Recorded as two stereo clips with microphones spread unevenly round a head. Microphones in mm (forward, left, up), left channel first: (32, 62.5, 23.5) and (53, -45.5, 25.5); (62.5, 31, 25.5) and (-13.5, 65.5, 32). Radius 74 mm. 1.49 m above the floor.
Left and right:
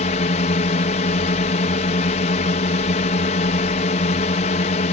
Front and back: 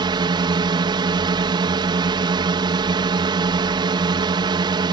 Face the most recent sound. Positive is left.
turn(degrees=130)